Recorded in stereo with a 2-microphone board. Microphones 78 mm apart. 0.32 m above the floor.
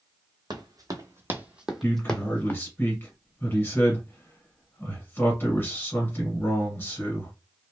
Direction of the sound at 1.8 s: 25° left (ahead or behind).